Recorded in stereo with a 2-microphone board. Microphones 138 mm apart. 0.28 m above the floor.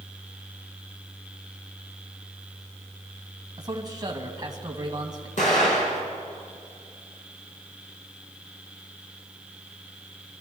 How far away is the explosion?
About 4 m.